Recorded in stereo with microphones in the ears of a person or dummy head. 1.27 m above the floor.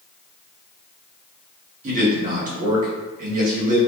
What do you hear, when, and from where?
1.8 s a man speaking: 50° right (ahead or behind), 1.8 m